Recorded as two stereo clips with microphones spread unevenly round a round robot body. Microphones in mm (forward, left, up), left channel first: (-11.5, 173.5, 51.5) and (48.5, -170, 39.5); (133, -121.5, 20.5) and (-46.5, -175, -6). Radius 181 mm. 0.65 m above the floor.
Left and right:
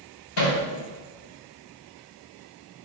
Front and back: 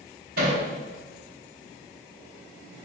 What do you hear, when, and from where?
0.4 s hammering: 145° left, 4 m